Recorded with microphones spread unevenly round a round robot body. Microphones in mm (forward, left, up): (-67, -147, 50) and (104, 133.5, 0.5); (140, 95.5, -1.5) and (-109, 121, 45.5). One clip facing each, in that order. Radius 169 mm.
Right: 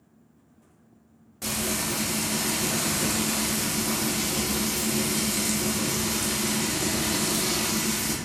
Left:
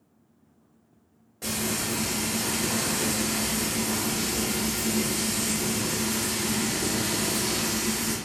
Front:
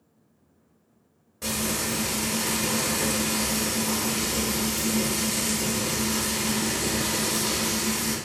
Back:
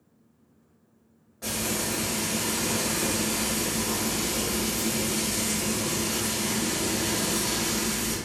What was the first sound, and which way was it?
Frying, 50° right.